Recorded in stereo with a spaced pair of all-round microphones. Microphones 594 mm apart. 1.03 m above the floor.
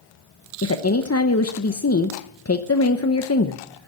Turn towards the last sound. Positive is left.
turn(degrees=25)  # may be behind; listen again after turning